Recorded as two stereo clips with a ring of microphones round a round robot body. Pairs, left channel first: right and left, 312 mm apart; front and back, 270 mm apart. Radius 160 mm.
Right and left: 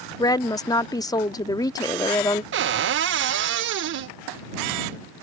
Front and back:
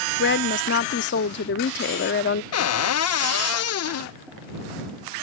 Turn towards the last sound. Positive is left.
turn(degrees=35)